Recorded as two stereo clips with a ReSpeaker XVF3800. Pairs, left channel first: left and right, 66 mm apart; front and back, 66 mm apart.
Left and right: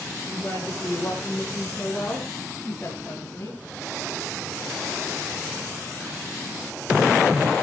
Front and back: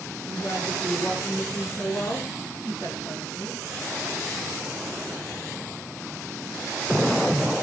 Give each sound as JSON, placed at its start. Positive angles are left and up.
{"t": 0.2, "sound": "a woman speaking", "azimuth_deg": 20, "distance_m": 8.0}